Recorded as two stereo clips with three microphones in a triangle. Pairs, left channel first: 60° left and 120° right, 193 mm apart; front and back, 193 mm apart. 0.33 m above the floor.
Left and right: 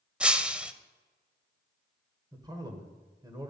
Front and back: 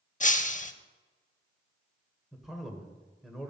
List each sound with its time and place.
0.2 s breaking glass: 35° right, 0.5 m
2.3 s a man speaking: 95° right, 1.3 m